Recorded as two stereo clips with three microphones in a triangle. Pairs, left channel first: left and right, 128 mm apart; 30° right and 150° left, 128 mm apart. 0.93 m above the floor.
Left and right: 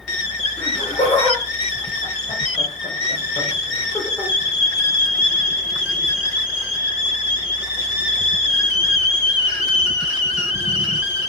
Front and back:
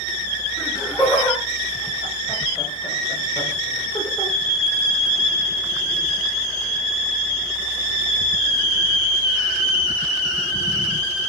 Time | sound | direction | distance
0.6 | laughter | 60° left | 6 m